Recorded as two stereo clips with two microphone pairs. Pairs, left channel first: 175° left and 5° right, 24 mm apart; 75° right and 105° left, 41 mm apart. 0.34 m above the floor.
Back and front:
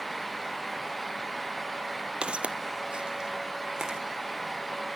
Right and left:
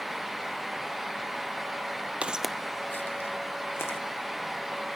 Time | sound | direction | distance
2.2 | footsteps | 40° left | 0.6 m